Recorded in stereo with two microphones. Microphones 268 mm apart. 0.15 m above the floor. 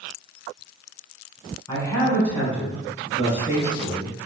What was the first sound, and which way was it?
A man speaking, 15° left (ahead or behind).